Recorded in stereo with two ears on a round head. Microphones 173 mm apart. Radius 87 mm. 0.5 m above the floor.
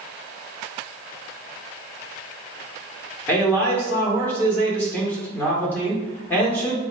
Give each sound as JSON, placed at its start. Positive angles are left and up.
{"t": 3.3, "sound": "a man speaking", "side_deg": 10, "distance_m": 1.5}